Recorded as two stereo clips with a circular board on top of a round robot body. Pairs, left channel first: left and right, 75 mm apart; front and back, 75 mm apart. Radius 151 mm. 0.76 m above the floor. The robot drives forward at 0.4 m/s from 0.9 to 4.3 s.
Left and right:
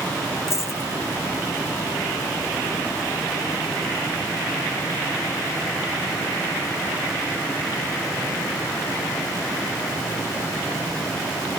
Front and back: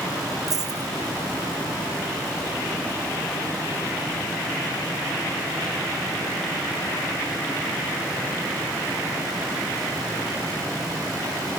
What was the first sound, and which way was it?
A dropped coin, 145° left.